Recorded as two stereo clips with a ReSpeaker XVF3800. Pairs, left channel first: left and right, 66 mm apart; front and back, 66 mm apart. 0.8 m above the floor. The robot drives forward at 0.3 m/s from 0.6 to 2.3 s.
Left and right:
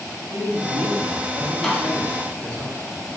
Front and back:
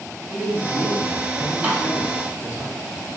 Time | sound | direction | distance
0.3 | a man speaking | 90° right | 1.5 m
1.6 | a snare drum | 160° left | 1.0 m